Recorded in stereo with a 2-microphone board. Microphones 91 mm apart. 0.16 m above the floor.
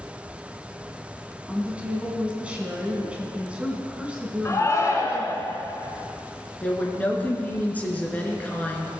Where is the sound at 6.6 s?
20° left (ahead or behind), 2.5 m.